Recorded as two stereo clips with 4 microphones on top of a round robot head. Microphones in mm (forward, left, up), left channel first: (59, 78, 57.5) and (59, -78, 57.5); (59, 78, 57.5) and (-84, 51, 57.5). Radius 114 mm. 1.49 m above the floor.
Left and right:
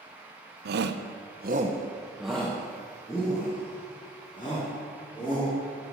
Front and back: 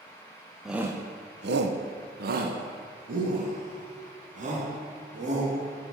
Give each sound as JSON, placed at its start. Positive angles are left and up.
{"t": 0.7, "sound": "a shout", "azimuth_deg": -80, "distance_m": 0.9}